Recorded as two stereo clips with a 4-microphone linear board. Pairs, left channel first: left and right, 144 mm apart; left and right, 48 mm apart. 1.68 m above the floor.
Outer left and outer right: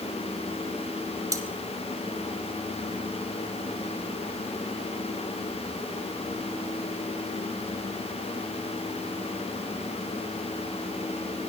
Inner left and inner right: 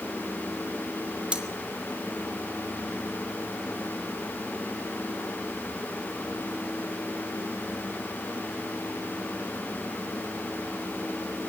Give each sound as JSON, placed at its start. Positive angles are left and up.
{"t": 1.3, "sound": "cutlery clinking", "side_deg": -25, "distance_m": 2.5}